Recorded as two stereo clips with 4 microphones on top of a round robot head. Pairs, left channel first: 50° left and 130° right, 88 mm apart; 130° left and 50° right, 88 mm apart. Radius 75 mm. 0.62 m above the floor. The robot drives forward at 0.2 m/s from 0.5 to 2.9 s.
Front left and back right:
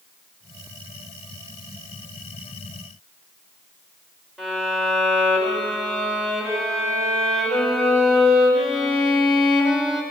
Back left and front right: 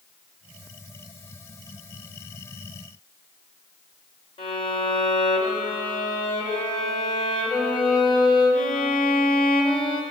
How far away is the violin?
About 3 m.